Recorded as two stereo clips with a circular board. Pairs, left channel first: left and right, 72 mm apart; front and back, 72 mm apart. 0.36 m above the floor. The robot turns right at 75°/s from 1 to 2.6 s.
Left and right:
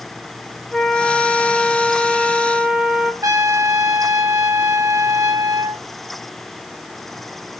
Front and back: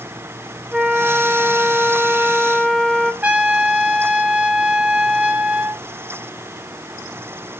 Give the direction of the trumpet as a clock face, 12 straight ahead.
4 o'clock.